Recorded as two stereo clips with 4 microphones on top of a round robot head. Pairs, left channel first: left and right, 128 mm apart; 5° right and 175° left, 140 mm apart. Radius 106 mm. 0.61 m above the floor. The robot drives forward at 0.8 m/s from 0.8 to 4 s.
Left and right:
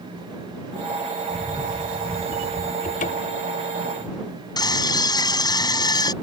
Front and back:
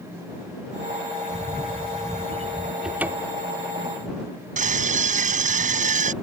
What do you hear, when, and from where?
1.3 s a camera shutter: 55° right; by 2.7 s 95° right
2.8 s a cupboard door: 90° left; by 3.5 s 115° left
4.6 s a scream: 150° left